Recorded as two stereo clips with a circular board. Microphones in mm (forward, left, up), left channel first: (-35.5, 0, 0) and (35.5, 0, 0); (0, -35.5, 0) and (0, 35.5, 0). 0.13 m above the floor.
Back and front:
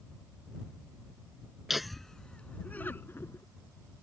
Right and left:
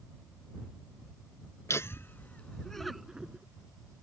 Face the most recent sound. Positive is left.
turn(degrees=150)